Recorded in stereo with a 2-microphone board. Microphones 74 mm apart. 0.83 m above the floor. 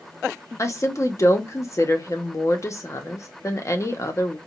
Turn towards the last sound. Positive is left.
turn(degrees=40)  # may be behind; listen again after turning